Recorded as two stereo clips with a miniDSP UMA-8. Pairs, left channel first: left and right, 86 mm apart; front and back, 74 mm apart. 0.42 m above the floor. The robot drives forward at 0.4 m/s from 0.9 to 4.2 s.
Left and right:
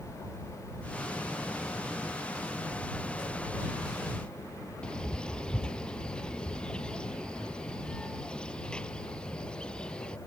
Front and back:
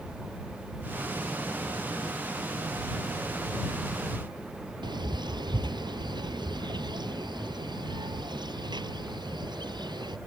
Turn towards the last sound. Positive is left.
turn(degrees=170)